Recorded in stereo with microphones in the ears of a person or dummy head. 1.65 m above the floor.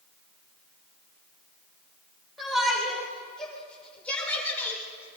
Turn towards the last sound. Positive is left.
turn(degrees=15)  # may be behind; listen again after turning